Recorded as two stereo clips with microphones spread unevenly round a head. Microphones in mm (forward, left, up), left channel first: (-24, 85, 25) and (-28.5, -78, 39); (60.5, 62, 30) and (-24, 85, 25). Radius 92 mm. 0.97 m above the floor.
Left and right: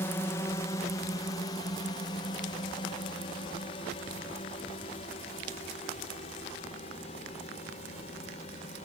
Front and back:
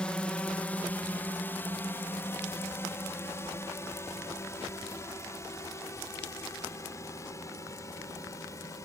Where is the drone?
50° left; by 8.8 s 35° left.